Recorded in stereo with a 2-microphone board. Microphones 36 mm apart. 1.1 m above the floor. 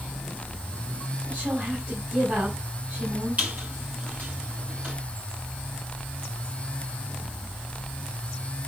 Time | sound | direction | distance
1.2 | a woman speaking | 45° right (ahead or behind) | 6.5 m
3.4 | a squeak | 45° right (ahead or behind) | 9.5 m